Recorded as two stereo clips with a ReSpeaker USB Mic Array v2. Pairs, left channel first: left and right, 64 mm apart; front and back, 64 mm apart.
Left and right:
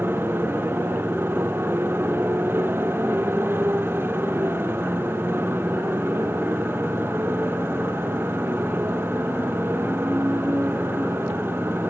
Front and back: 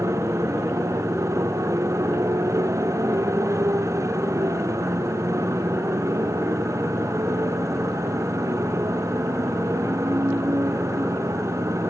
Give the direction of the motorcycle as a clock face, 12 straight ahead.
5 o'clock.